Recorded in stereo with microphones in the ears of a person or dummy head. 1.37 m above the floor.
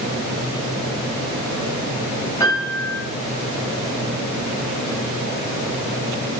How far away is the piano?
About 0.8 m.